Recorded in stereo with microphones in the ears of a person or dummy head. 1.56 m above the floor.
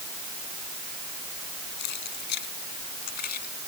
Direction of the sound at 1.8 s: 60° left (ahead or behind).